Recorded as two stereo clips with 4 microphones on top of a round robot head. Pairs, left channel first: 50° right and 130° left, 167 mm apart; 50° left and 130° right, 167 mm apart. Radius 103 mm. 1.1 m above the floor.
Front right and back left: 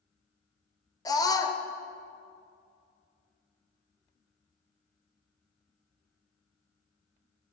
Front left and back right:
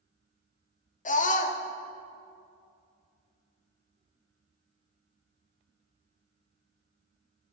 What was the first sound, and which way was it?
A scream, 15° left.